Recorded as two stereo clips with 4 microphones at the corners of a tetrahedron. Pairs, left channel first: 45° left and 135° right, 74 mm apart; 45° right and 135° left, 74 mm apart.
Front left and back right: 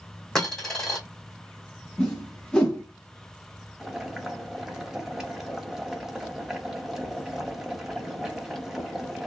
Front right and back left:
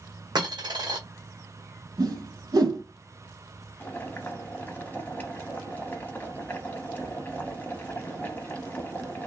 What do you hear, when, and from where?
0.3 s a dropped coin: 130° left, 1.5 m
2.0 s a whoosh: 125° left, 1.2 m
3.8 s boiling: 60° right, 0.8 m